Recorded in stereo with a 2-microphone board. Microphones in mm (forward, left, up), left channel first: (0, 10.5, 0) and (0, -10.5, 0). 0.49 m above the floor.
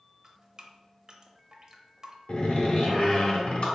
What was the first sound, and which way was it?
Dripping, 35° right (ahead or behind).